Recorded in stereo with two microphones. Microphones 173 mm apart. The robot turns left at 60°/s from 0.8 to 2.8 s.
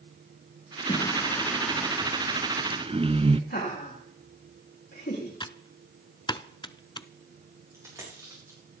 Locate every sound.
0.9 s singing: 50° left, 0.9 m; by 3.4 s 65° right, 0.9 m
3.5 s laughter: 75° left (ahead or behind), 9 m
5.4 s typing on a keyboard: 25° left (ahead or behind), 0.6 m
7.7 s a dropped coin: 15° right (ahead or behind), 7.5 m